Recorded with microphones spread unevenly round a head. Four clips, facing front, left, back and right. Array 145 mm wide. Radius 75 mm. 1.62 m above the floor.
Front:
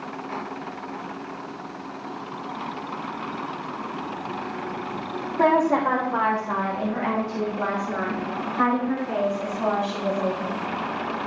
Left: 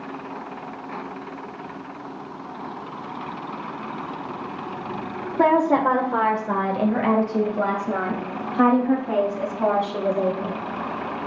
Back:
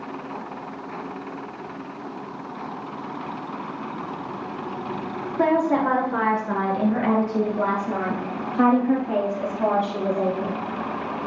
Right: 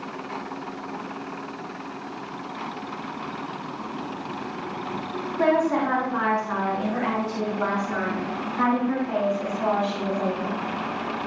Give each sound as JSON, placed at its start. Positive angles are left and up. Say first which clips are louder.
{"t": 5.4, "sound": "a woman speaking", "louder": "left 4 dB, front 1 dB", "azimuth_deg": 65, "distance_m": 1.6}